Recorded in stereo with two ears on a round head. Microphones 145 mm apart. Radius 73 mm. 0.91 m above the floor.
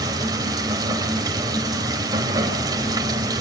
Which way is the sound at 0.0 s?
25° right (ahead or behind).